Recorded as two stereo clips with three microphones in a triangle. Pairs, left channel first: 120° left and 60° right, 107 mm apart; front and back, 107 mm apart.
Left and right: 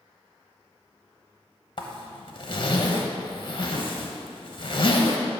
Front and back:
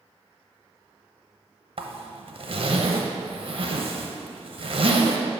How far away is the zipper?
About 0.8 m.